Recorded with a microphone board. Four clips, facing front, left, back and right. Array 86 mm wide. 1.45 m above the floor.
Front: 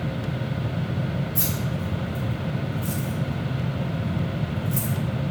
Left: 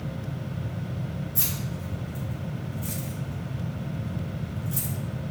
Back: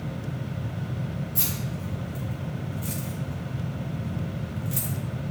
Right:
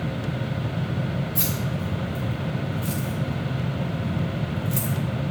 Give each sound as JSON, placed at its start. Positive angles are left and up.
{"t": 1.4, "sound": "keys jangling", "azimuth_deg": -90, "distance_m": 3.0}